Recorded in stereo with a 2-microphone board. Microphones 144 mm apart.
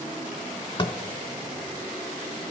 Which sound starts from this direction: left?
Tapping, at 0.8 s.